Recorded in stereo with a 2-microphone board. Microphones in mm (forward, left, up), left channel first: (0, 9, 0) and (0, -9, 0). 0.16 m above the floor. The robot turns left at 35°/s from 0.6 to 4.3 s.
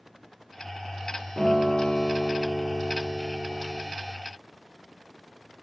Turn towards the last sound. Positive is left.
turn(degrees=165)